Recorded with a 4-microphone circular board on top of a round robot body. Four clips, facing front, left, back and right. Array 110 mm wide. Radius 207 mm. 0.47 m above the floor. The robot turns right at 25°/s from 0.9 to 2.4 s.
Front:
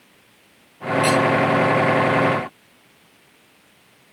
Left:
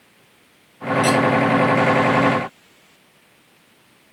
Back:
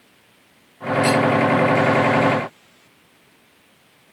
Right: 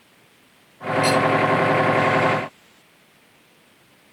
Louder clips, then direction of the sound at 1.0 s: Left 1 dB, even; 25° right.